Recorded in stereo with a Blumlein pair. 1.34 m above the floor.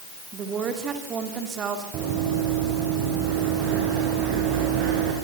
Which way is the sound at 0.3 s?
25° right.